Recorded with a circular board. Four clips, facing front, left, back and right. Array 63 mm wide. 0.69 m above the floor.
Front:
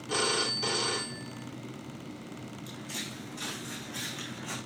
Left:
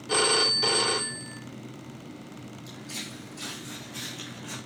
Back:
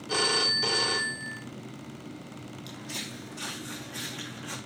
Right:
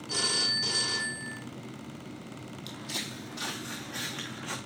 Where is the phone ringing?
100° left, 0.8 m.